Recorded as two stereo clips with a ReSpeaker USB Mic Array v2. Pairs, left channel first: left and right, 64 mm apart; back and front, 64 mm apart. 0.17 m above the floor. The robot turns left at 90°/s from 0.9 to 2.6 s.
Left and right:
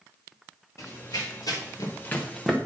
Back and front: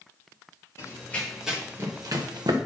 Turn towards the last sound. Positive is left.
turn(degrees=-15)